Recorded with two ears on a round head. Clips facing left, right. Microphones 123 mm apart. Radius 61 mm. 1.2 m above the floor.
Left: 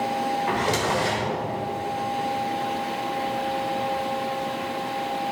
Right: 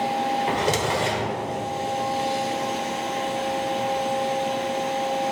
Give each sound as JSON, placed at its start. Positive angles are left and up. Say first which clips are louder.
{"t": 0.5, "sound": "a drawer", "louder": "right 1 dB", "side_deg": -30, "distance_m": 1.2}